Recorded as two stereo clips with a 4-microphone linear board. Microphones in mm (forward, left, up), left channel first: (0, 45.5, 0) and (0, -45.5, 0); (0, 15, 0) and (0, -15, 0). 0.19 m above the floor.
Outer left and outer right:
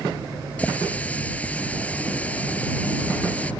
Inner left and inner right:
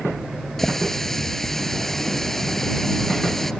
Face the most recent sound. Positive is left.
turn(degrees=15)  # may be behind; listen again after turning